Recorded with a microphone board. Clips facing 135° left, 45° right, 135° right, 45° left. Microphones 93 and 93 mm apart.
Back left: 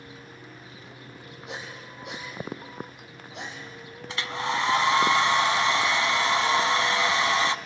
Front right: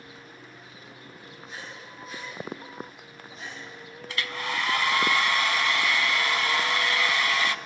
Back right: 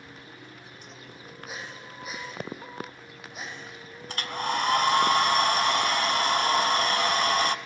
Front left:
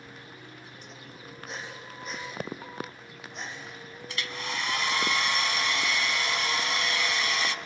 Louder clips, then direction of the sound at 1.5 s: Back left 4 dB, even; 140° left.